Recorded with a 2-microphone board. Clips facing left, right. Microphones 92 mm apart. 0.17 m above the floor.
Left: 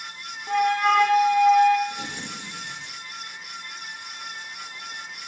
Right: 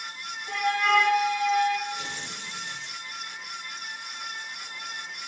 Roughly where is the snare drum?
No snare drum in this recording.